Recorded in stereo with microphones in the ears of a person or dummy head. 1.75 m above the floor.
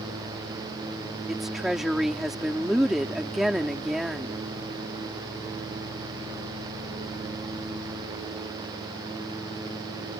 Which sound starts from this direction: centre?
A woman speaking, at 1.3 s.